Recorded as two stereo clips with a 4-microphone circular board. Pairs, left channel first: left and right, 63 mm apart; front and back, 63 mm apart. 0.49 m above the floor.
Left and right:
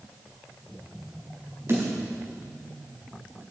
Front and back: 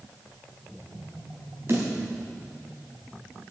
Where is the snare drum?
135° right, 4.5 m.